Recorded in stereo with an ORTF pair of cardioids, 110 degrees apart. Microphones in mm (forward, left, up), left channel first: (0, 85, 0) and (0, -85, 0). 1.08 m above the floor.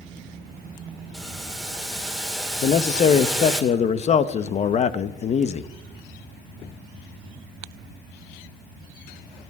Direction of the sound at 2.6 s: 40° left.